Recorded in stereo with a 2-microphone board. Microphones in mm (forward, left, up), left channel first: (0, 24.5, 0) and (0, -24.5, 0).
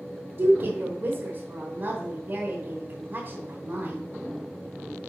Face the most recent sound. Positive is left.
turn(degrees=-45)  # may be behind; listen again after turning